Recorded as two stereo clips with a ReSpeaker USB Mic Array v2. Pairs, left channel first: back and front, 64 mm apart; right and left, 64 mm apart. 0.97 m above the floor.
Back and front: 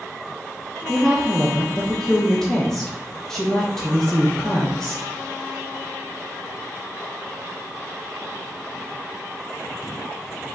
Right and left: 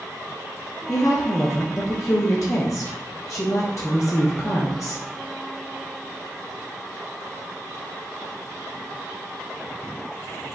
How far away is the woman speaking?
About 0.5 m.